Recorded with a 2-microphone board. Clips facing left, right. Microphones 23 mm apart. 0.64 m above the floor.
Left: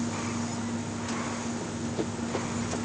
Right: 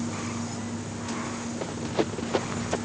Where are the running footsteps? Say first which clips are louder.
Right 4 dB; 45° right (ahead or behind); by 2.8 s 35° right (ahead or behind).